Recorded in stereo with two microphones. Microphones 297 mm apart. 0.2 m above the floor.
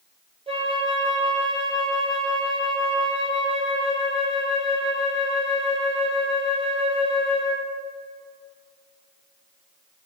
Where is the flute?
20° right (ahead or behind), 1.5 m.